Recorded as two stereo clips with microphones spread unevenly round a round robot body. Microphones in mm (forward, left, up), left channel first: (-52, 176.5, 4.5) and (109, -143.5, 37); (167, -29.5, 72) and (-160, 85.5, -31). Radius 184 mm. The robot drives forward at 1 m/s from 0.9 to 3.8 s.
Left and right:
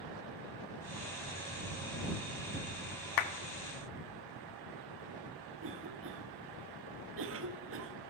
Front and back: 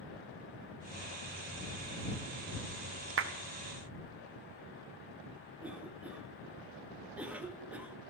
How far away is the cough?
About 1.1 m.